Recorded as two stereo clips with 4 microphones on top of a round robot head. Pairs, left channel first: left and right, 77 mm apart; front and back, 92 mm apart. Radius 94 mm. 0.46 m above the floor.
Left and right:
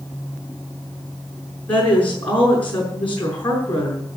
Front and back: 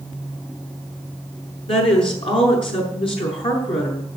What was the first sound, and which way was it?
A woman speaking, 15° left.